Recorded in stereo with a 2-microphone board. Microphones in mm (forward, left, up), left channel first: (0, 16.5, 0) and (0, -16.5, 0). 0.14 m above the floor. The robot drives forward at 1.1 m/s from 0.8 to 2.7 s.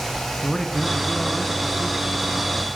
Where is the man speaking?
15° left (ahead or behind), 1.5 m.